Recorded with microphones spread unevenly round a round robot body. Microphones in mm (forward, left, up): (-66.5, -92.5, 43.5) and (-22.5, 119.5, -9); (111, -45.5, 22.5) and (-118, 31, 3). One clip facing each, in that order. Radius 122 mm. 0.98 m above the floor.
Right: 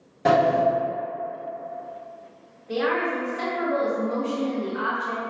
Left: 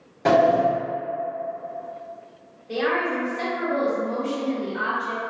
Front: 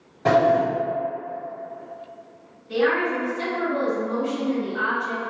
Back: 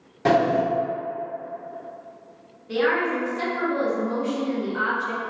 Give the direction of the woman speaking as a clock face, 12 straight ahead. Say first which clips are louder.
Even, front 1 dB; 6 o'clock.